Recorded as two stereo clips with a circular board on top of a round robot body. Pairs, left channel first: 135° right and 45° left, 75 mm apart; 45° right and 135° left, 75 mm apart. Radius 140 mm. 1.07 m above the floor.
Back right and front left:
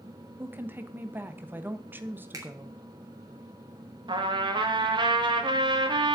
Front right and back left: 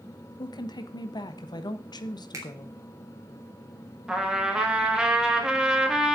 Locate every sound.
0.4 s a woman speaking: 20° right, 1.4 m
2.3 s a finger snap: 90° left, 3 m
4.1 s a trumpet: 55° left, 2 m